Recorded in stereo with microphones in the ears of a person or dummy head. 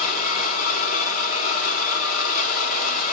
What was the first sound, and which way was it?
A machine running, 50° left (ahead or behind).